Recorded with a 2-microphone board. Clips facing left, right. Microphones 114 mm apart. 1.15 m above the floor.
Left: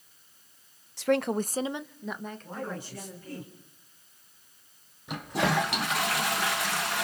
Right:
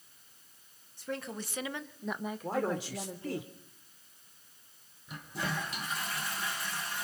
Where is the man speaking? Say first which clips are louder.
Right 8 dB; 75° right (ahead or behind), 3 m.